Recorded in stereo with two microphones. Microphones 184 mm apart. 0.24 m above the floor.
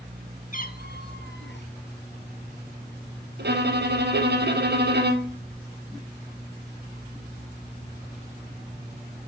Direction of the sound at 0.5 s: 50° left (ahead or behind).